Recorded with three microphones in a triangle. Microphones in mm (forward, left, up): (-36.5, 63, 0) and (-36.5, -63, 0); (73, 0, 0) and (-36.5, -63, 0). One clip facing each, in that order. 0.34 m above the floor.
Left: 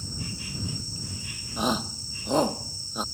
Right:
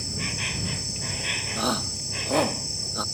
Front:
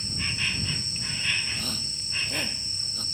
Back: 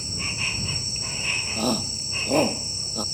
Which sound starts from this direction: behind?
A shout, at 1.6 s.